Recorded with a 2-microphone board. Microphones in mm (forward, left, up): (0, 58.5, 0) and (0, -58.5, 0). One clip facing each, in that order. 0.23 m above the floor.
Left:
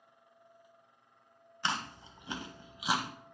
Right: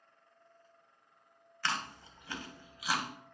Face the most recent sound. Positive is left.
turn(degrees=20)  # may be behind; listen again after turning